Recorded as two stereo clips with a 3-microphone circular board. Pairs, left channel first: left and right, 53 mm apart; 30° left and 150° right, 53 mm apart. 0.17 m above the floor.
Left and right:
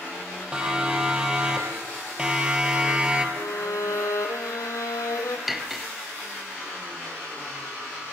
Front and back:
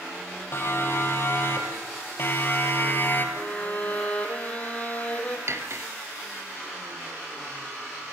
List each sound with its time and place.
0.5 s a siren: 15° right, 5 m; by 3.3 s 20° right, 3 m
3.4 s a violin: 90° left, 2.5 m
5.5 s cutlery clinking: 175° right, 1.7 m